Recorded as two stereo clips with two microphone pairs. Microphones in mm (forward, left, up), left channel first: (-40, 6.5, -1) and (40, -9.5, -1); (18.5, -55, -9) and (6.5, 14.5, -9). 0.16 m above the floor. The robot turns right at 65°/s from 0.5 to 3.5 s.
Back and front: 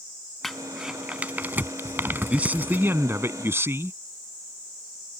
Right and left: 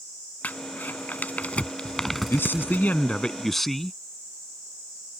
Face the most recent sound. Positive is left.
turn(degrees=5)